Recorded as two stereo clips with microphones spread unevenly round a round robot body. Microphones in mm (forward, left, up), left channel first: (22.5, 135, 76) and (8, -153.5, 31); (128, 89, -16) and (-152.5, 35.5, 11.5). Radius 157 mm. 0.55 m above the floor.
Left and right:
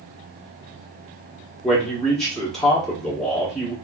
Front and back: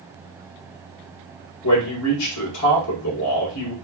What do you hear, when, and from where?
1.6 s a man speaking: 10° right, 1.6 m